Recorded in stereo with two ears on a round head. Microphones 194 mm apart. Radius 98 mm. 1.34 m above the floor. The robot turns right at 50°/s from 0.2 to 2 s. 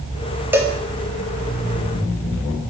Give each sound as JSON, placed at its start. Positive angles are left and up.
{"t": 0.5, "sound": "a cowbell", "side_deg": -10, "distance_m": 1.1}